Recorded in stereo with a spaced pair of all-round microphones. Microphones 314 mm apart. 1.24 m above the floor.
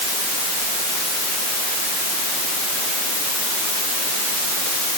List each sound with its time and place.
Only background noise.